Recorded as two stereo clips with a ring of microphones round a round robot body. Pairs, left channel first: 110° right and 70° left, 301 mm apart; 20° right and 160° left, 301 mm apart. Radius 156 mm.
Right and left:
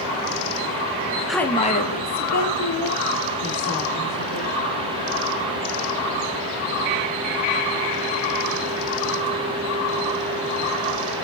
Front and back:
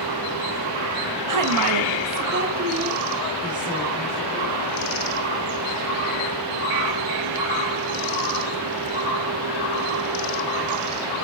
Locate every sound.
1.3 s a woman speaking: 155° left, 1.1 m; by 4.6 s 120° right, 4 m